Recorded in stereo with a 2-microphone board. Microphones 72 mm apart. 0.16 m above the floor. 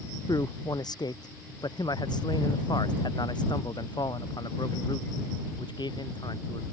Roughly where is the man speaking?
Left.